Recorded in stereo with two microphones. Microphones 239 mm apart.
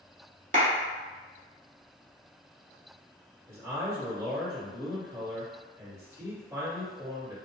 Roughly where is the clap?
Right.